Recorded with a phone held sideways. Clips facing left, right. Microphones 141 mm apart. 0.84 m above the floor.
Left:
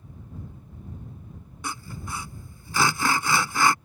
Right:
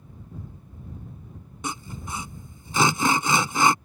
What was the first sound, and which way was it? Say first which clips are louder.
Sawing: right 2 dB; 20° right (ahead or behind).